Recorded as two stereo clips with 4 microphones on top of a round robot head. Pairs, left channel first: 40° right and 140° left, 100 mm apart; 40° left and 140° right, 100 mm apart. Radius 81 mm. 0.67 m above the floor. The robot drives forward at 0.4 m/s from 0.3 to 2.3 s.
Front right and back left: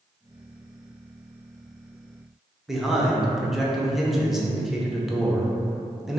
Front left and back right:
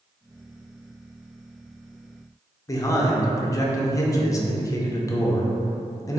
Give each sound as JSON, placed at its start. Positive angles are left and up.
{"t": 2.7, "sound": "a man speaking", "azimuth_deg": 60, "distance_m": 0.6}